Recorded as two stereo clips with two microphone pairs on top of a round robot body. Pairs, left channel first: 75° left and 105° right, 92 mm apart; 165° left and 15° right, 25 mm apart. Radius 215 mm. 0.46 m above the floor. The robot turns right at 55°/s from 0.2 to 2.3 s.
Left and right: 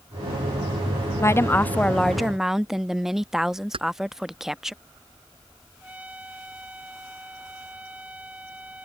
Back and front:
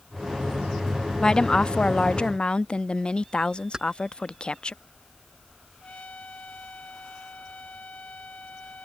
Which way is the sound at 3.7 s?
80° right.